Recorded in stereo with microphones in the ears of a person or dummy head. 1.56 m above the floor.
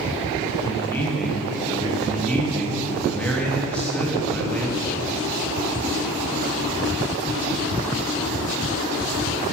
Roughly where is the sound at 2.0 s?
Centre.